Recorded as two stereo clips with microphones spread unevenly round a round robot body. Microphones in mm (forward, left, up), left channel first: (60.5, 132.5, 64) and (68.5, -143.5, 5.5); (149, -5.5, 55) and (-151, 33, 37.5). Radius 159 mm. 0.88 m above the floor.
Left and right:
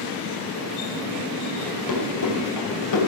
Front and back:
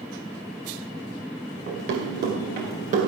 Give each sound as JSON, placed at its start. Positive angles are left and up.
{"t": 1.7, "sound": "running footsteps", "azimuth_deg": 120, "distance_m": 5.5}